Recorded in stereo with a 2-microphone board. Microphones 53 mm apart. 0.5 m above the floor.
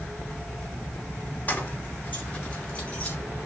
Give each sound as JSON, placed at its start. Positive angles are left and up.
{"t": 1.5, "sound": "keys jangling", "side_deg": 35, "distance_m": 0.9}